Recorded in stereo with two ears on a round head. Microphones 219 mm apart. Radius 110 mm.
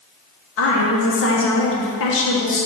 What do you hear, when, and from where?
0.6 s a woman speaking: 55° left (ahead or behind), 1.2 m